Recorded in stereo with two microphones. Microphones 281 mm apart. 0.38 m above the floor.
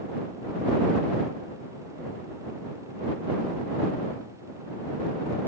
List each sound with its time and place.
Only background noise.